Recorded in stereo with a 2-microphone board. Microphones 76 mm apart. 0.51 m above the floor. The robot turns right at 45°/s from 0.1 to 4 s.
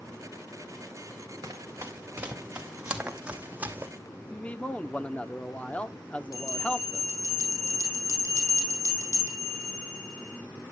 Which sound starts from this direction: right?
Running footsteps, at 1.4 s.